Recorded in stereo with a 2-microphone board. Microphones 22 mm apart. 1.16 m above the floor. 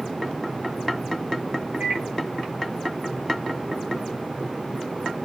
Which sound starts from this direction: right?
A microwave, at 1.8 s.